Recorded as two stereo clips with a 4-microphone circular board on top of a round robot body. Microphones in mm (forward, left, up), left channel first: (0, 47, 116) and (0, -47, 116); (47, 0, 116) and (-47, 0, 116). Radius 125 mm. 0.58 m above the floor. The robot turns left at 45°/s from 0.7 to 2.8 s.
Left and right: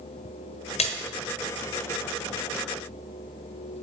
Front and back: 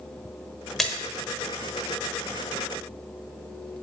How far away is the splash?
About 1.0 m.